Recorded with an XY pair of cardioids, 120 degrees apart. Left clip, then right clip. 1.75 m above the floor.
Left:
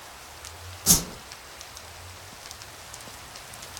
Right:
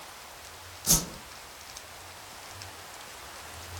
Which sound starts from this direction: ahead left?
A whoosh, at 0.9 s.